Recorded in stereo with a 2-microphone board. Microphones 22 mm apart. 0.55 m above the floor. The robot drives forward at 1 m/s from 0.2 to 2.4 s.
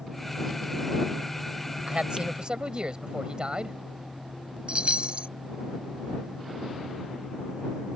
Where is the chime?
55° right (ahead or behind).